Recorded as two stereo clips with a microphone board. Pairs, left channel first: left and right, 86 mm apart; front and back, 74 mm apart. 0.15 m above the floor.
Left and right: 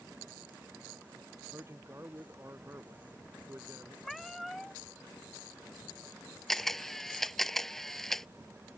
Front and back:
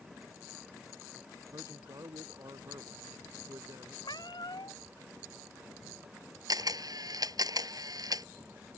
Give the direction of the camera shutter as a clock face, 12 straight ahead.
6 o'clock.